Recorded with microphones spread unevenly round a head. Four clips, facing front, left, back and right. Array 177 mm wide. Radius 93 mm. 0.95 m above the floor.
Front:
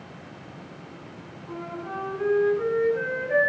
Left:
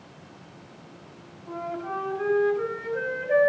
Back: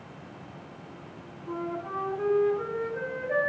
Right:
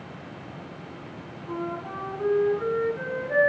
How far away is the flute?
About 5.5 m.